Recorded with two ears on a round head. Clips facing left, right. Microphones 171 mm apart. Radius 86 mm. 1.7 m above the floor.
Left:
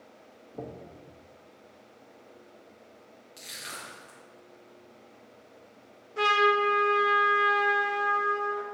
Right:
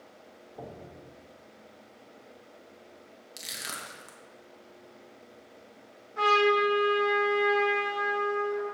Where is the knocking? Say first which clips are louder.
Left 3 dB; 50° left (ahead or behind), 1.4 m.